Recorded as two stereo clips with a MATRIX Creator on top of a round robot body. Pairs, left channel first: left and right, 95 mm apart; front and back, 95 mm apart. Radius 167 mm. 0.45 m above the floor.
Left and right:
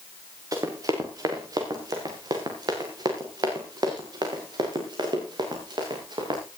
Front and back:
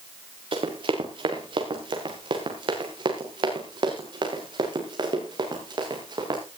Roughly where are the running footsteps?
Behind right.